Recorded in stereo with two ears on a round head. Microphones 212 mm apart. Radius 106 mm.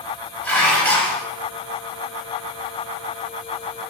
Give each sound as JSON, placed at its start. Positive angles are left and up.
{"t": 0.4, "sound": "dishes clattering", "side_deg": 10, "distance_m": 4.0}